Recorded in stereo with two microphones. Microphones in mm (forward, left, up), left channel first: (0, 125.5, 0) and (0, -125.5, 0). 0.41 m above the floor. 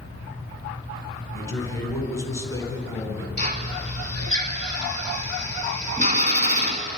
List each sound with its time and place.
1.3 s a man speaking: 10° left (ahead or behind), 4 m
3.4 s a drill: 30° right (ahead or behind), 1.6 m